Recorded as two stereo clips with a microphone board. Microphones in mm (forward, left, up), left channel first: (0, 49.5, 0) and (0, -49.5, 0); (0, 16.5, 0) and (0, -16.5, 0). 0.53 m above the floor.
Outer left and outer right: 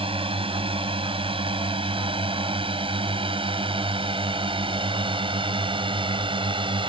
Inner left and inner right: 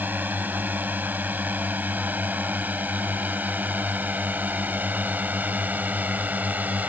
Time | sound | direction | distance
0.0 | a drone | 65° right (ahead or behind) | ?